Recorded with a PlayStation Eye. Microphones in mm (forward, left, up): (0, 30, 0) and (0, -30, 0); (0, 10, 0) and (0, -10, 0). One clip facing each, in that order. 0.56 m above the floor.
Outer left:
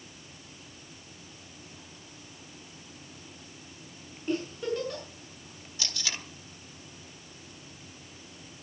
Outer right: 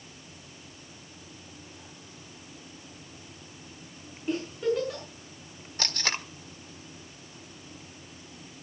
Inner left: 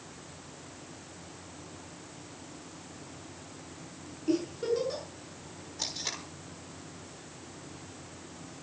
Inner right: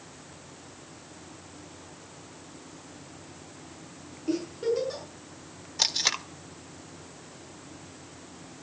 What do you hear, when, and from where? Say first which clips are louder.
4.3 s a giggle: outer right 3 dB, inner right 1 dB; 5° right (ahead or behind), 6.5 m
5.8 s tape being pulled: outer right 6 dB, inner right 10 dB; 55° right (ahead or behind), 1.3 m